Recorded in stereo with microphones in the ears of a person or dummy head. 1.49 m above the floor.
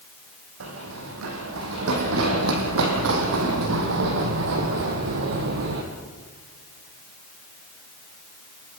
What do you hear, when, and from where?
0.6 s running footsteps: 75° right (ahead or behind), 6 m; by 5.8 s 55° right (ahead or behind), 3 m